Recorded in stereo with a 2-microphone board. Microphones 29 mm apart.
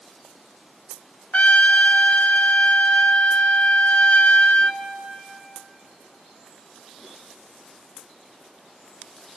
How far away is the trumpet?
About 0.7 m.